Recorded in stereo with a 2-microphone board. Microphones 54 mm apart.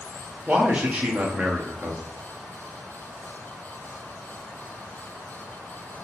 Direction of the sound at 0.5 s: 20° right (ahead or behind).